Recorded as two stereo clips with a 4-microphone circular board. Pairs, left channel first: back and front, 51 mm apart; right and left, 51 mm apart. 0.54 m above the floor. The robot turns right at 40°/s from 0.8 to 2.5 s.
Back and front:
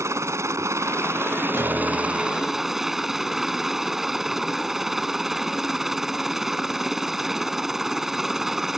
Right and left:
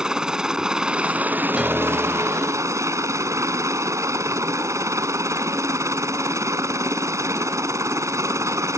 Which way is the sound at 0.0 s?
15° left.